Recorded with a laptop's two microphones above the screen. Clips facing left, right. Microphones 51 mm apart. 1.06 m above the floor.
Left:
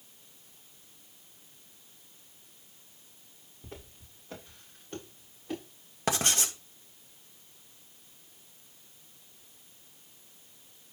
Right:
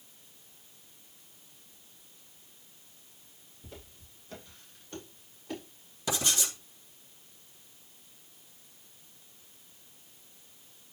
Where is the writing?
50° left (ahead or behind), 2.5 m.